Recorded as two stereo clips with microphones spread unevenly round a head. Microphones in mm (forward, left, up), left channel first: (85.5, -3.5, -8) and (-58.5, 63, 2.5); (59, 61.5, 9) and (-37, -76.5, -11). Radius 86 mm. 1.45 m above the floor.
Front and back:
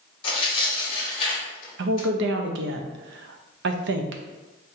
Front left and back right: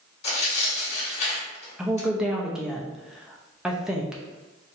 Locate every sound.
0.2 s tearing paper: 30° left, 1.4 m
1.8 s a woman speaking: 150° left, 0.5 m